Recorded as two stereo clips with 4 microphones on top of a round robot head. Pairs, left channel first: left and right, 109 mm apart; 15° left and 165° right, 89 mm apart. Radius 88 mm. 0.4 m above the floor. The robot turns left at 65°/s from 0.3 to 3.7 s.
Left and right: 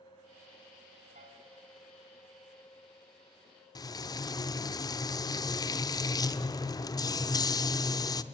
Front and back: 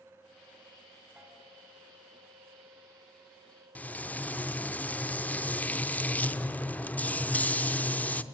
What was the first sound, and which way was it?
A piano, 85° right.